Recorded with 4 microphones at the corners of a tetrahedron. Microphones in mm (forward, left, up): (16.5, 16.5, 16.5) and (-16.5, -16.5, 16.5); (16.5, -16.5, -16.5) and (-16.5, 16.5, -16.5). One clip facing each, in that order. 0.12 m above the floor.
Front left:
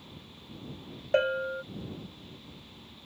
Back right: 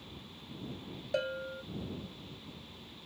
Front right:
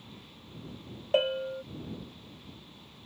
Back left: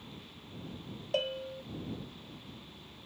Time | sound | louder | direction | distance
1.1 | a bell | front left 9 dB, front right 7 dB | 10° left | ?